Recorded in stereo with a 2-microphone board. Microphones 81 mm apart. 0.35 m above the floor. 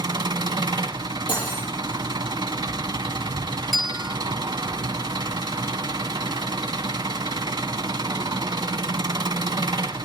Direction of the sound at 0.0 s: 65° right (ahead or behind).